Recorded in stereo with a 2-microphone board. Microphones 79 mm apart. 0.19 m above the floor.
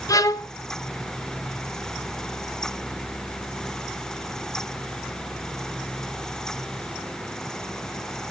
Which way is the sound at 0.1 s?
50° left (ahead or behind).